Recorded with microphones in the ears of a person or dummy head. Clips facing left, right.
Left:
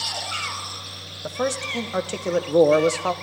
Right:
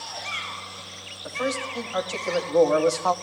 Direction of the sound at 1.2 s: 60° left (ahead or behind).